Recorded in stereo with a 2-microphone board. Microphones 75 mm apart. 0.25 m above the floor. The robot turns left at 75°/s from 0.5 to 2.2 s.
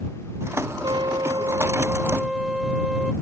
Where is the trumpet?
75° right; by 3.1 s 175° right.